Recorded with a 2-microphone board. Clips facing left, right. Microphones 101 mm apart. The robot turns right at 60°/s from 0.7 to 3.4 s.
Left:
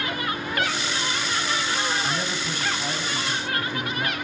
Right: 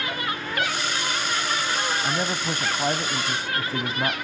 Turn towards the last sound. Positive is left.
turn(degrees=-60)